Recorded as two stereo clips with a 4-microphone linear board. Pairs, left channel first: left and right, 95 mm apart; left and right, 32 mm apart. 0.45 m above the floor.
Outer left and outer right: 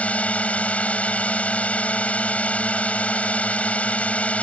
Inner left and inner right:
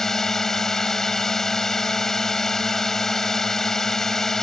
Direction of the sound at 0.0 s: 15° left (ahead or behind).